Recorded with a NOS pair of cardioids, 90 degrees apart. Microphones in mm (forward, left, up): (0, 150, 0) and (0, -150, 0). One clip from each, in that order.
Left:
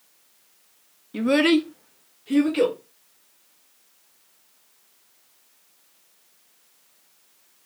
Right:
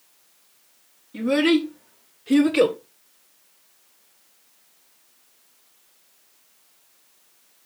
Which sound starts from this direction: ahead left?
A child speaking, at 1.1 s.